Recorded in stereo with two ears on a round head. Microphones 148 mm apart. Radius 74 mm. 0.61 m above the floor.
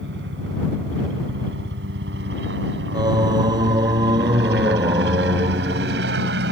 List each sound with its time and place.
0.0 s a helicopter: 70° right (ahead or behind)
2.9 s singing: 25° right (ahead or behind)